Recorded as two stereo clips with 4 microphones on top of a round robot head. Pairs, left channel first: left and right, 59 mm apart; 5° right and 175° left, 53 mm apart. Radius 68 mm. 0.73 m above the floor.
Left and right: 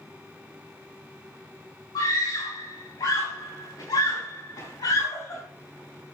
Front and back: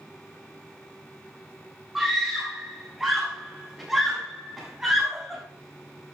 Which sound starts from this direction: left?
A scream, at 1.9 s.